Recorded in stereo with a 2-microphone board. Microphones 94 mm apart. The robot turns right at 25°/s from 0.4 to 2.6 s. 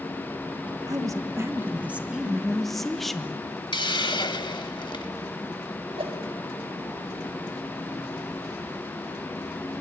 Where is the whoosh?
85° right, 2.5 m.